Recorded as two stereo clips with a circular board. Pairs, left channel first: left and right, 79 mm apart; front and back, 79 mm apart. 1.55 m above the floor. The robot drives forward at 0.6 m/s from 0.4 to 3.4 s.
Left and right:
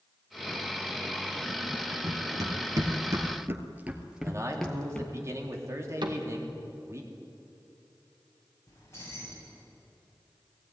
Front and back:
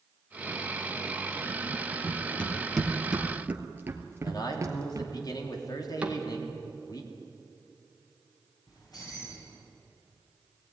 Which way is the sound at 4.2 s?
35° right.